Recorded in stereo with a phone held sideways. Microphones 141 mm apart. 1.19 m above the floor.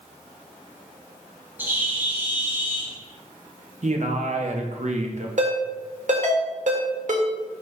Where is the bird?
15° right (ahead or behind), 1.1 m.